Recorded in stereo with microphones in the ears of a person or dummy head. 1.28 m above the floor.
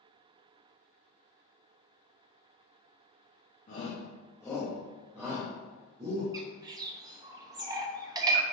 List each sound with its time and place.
3.7 s a shout: 35° left (ahead or behind), 1.6 m; by 6.2 s 35° right (ahead or behind), 2.0 m
6.3 s a bird: 20° right (ahead or behind), 0.8 m